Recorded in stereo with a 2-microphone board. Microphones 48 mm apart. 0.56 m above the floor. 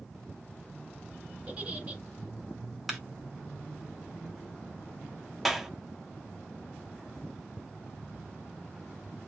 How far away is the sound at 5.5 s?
About 0.6 m.